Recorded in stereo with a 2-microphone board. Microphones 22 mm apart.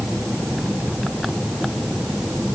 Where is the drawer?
No drawer in this recording.